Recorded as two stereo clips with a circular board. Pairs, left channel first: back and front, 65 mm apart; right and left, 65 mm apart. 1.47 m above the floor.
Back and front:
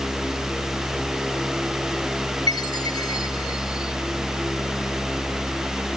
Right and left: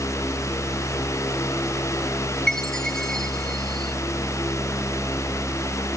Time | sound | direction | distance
2.5 | a chime | 170° right | ?